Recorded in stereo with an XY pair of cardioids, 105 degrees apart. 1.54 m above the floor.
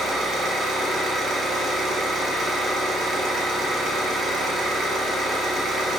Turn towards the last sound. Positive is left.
turn(degrees=-70)